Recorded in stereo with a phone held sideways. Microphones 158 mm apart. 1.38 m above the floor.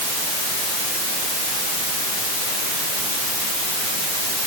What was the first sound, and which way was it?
Only background noise.